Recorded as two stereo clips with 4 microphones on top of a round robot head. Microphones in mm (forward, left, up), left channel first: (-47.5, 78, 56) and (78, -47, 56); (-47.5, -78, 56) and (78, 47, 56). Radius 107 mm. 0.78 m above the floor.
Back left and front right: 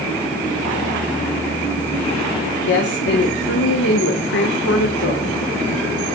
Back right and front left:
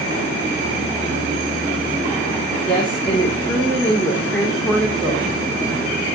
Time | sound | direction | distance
2.7 | a woman speaking | 140° left | 2.5 m